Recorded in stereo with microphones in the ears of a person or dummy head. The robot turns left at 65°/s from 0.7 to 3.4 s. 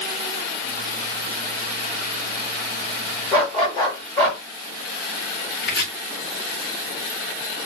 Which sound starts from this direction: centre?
A dog barking, at 3.3 s.